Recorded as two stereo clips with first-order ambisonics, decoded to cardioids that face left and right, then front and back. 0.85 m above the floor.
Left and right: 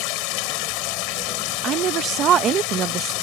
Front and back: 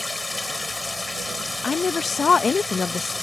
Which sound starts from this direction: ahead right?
A woman speaking, at 1.6 s.